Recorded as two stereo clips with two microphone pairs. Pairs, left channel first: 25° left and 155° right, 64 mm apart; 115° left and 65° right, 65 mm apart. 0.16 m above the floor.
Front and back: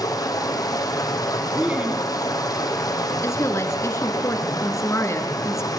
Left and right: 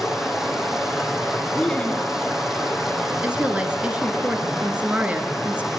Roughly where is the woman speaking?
Ahead.